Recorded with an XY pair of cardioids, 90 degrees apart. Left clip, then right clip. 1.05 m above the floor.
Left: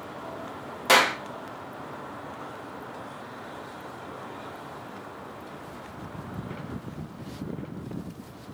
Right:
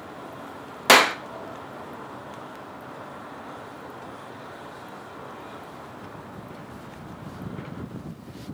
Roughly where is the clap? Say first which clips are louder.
Right 4 dB; ahead right.